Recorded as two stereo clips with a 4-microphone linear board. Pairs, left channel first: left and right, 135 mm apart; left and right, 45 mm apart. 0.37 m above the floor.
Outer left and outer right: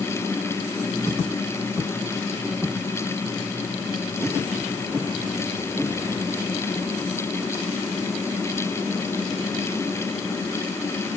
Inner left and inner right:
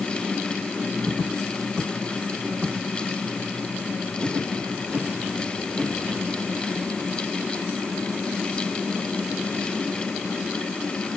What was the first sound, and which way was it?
Only background noise.